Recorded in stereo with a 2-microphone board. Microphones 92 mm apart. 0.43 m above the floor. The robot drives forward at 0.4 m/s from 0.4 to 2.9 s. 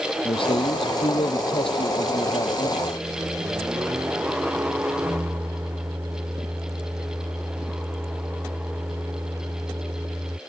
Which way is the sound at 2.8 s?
30° right (ahead or behind).